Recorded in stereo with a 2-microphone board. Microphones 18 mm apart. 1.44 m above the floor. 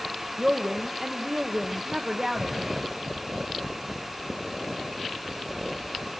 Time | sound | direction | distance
0.4 | a woman speaking | 35° right (ahead or behind) | 1.1 m